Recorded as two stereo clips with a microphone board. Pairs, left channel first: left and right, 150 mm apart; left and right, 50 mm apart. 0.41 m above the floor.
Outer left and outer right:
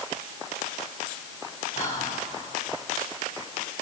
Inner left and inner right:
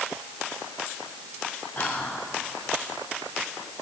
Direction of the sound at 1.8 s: 50° left (ahead or behind).